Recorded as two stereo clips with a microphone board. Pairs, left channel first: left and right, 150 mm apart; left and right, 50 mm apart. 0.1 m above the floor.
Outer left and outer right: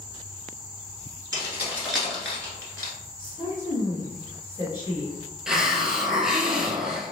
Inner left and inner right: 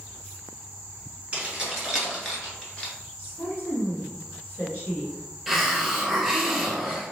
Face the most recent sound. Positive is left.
turn(degrees=-5)  # may be behind; listen again after turning